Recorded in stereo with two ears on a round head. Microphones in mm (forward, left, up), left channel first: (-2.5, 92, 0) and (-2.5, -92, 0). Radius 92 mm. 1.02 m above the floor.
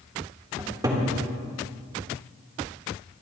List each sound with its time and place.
0.6 s a cupboard door: 20° right (ahead or behind), 2.5 m